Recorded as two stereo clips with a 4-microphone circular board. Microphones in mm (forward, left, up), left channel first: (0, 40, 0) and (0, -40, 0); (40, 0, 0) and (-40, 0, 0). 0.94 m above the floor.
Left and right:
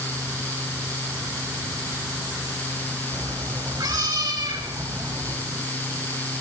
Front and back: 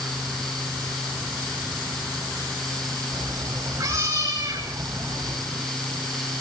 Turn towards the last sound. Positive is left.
turn(degrees=-125)